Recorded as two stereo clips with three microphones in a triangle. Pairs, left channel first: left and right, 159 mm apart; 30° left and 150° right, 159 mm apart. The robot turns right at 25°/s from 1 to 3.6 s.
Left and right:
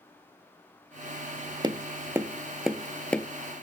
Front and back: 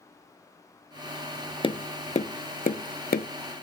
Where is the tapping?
30° right, 0.5 m; by 3.3 s 10° left, 0.5 m.